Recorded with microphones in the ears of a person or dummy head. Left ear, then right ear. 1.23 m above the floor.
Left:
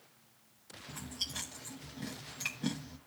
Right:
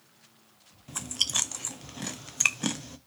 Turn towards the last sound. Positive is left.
turn(degrees=-45)  # may be behind; listen again after turning